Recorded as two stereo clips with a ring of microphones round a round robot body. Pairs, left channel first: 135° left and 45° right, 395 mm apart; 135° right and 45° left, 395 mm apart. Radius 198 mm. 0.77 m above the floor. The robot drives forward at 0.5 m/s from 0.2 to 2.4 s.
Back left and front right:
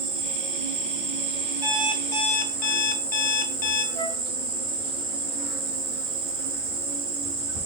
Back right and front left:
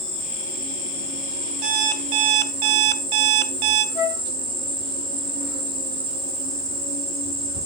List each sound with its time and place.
0.0 s an insect: 25° right, 3.5 m; by 7.7 s 35° right, 2.5 m
1.6 s an alarm clock: 35° left, 0.8 m; by 3.9 s 65° left, 0.5 m
4.0 s a flute: 120° right, 0.8 m